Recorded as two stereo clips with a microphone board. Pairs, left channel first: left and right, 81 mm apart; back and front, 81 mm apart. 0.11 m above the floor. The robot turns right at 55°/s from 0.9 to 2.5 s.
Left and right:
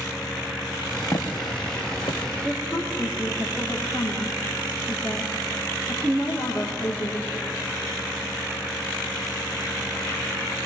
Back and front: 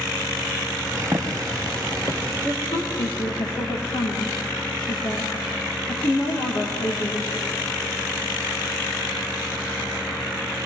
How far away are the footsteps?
About 3 m.